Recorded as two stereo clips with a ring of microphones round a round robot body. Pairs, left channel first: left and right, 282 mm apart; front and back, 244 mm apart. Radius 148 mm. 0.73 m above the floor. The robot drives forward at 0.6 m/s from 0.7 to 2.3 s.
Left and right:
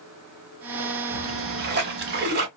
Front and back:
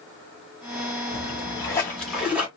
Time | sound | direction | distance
1.1 | a splash | 50° right | 1.4 m